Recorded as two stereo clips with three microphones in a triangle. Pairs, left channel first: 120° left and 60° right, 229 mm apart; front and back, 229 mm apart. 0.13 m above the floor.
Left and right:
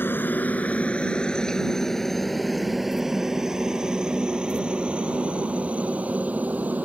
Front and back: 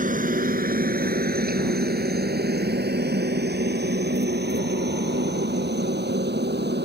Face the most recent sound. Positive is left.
turn(degrees=-145)